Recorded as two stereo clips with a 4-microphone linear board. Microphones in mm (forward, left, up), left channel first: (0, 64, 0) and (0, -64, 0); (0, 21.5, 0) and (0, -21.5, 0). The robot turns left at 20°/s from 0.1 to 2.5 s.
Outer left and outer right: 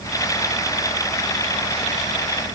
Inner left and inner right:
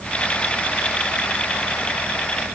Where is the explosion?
No explosion in this recording.